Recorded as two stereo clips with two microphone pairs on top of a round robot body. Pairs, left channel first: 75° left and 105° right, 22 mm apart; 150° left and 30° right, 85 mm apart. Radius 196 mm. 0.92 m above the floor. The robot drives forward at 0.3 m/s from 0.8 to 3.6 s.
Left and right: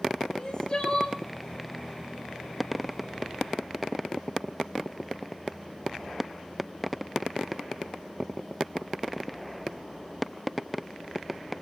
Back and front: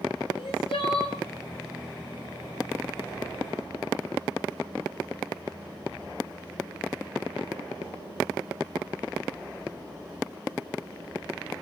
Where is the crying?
135° left, 4.5 m.